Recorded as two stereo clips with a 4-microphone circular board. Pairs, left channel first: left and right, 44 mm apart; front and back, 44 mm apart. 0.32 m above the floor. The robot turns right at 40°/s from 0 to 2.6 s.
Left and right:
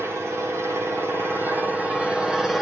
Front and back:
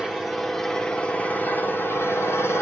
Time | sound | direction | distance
0.0 | an engine running | 110° right | 5.5 m